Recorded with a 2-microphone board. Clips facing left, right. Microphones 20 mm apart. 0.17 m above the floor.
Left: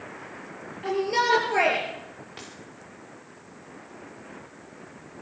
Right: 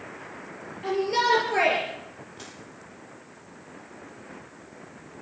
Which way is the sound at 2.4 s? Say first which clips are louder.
Left 2 dB; 55° left (ahead or behind).